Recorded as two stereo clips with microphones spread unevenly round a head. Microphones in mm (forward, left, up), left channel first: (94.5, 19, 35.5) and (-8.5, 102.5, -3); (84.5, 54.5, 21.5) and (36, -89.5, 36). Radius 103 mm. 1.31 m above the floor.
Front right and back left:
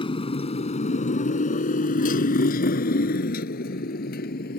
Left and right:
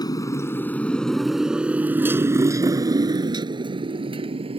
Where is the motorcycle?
5° left; by 4.6 s 55° right.